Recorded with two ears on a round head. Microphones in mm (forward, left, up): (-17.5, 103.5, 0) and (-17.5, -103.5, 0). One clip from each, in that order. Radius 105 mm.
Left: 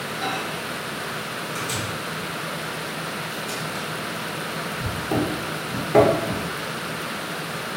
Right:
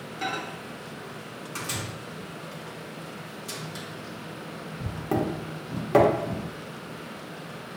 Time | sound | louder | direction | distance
0.2 | a microwave | left 2 dB | 20° right (ahead or behind) | 1.3 m